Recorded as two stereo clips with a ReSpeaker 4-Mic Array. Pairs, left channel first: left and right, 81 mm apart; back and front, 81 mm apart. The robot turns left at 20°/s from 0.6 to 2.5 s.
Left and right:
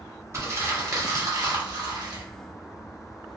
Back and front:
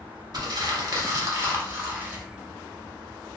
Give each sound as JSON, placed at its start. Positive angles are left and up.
{"t": 0.3, "sound": "crumpling", "azimuth_deg": -40, "distance_m": 0.8}